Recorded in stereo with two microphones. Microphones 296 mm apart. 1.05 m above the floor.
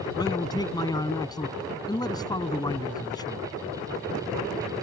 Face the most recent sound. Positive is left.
turn(degrees=10)  # may be behind; listen again after turning